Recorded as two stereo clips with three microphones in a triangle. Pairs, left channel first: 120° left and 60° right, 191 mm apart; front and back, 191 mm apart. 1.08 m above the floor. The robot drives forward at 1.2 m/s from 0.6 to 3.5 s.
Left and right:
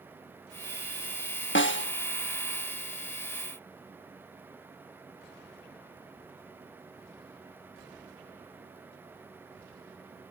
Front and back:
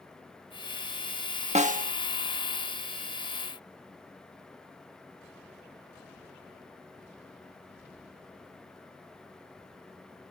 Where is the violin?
I don't hear a violin.